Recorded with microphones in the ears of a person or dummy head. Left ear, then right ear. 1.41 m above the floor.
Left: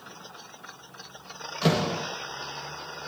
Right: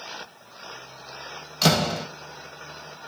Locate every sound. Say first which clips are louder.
1.6 s a door slam: right 4 dB; 40° right (ahead or behind), 1.3 m